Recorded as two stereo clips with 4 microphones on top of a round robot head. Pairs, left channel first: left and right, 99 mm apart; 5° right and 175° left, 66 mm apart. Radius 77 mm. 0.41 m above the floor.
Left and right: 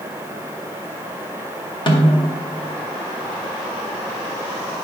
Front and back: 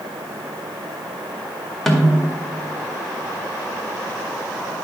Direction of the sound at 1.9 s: 85° left.